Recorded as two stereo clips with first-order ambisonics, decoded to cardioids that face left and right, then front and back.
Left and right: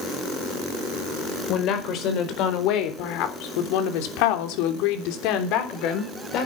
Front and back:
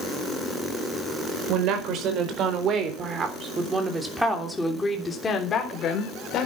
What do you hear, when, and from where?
1.5 s a woman speaking: 140° left, 4.5 m; by 6.5 s 50° left, 4 m